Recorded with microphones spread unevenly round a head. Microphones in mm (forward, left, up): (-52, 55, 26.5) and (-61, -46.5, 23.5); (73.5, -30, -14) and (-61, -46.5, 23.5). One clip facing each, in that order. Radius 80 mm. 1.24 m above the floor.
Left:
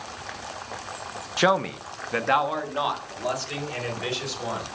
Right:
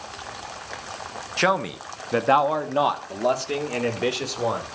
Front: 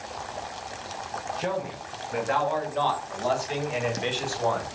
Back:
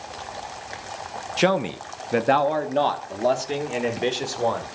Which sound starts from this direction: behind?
A man speaking, at 1.4 s.